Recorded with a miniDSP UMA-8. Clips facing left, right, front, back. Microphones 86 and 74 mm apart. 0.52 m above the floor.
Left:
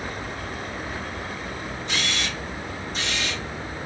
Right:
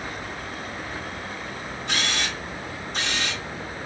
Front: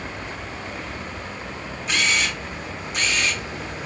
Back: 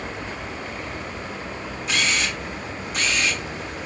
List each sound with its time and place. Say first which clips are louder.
1.9 s a camera shutter: right 2 dB, front 1 dB; 90° right, 2.5 m